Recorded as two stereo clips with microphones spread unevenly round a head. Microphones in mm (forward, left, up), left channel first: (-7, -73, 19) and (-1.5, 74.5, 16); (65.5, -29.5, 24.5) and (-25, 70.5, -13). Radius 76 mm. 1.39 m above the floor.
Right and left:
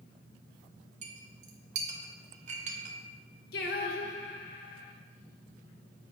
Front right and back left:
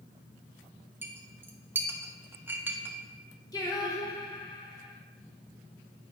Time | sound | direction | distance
1.0 | a clink | 50° left | 0.9 m
3.5 | singing | 110° right | 1.0 m